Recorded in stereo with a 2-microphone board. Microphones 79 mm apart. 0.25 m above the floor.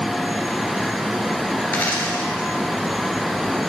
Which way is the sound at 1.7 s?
20° left (ahead or behind).